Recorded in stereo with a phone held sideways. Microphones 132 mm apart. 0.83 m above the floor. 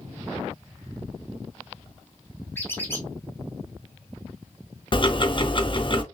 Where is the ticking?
40° left (ahead or behind), 0.5 m.